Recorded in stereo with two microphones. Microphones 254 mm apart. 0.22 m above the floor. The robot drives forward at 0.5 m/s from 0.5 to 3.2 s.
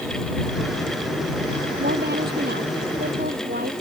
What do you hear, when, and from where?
1.8 s a woman speaking: 40° right (ahead or behind)